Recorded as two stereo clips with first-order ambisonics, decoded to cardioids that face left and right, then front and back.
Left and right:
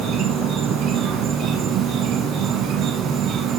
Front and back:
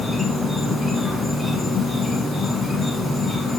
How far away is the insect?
About 0.9 m.